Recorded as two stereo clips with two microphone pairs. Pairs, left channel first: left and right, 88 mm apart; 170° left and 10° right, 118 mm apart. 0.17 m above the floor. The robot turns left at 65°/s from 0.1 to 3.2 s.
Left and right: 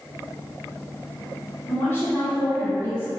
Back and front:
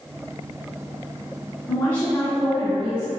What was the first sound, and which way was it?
A woman speaking, 135° left.